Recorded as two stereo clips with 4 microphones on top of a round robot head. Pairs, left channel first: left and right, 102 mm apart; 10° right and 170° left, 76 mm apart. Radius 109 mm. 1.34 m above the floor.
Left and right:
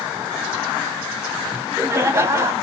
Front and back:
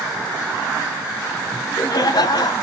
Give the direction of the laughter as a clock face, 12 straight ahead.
1 o'clock.